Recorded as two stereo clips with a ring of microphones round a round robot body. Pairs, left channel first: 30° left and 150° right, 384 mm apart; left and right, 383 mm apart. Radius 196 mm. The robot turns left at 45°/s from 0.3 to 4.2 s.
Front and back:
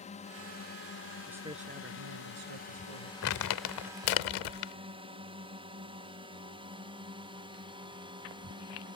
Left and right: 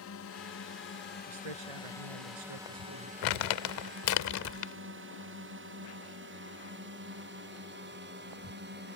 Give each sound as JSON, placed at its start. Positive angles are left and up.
{"t": 0.0, "sound": "a drone", "azimuth_deg": 90}
{"t": 1.3, "sound": "a man speaking", "azimuth_deg": -60}
{"t": 3.2, "sound": "crumpling", "azimuth_deg": 85}